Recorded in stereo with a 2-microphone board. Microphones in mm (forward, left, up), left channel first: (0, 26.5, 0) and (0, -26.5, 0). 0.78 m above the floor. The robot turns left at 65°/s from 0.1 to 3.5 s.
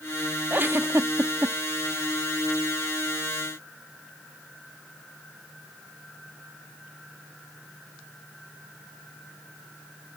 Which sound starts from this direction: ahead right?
A giggle, at 0.5 s.